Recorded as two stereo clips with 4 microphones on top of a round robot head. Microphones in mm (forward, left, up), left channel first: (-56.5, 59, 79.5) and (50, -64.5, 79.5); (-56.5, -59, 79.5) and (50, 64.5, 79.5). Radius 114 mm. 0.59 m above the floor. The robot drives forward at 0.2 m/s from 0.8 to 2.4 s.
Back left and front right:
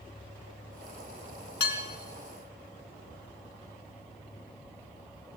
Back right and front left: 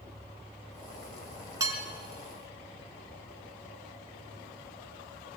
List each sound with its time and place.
1.6 s dishes clattering: 120° left, 5 m